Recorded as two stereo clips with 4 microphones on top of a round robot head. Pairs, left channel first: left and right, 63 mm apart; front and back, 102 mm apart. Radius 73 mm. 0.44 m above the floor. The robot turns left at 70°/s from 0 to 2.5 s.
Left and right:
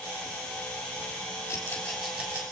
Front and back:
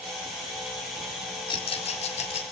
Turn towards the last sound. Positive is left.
turn(degrees=-35)